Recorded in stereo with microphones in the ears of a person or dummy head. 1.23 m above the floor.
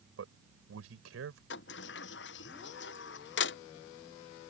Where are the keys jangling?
I don't hear keys jangling.